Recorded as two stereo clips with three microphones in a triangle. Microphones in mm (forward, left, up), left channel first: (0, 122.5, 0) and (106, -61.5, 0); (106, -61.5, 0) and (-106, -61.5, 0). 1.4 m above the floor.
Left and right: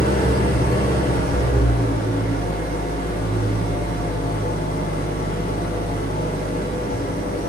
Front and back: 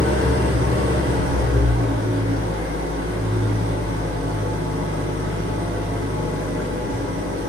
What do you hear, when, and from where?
0.0 s an engine running: 165° left, 0.9 m